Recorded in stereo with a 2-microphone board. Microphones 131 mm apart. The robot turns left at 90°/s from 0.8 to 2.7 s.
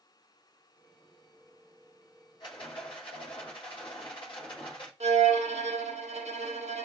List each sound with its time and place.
2.4 s a rattle: 35° left (ahead or behind), 1.1 m; by 4.9 s 40° left (ahead or behind), 1.1 m
5.0 s a violin: 55° right (ahead or behind), 0.6 m